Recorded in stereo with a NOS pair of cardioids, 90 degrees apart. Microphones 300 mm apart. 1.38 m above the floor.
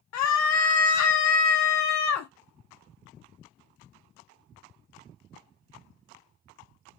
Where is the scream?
65° left, 0.5 m.